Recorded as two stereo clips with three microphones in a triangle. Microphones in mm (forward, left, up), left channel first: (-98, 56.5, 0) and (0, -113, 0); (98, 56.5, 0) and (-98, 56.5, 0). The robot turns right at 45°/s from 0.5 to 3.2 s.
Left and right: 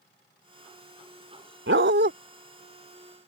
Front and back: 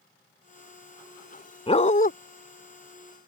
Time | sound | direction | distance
1.7 | a dog barking | 60° right | ?